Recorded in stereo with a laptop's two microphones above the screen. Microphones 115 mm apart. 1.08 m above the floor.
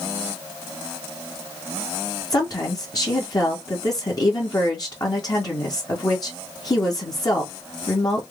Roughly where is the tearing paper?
No tearing paper in this recording.